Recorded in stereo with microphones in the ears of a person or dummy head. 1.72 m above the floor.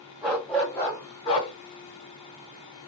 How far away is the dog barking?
About 2.5 m.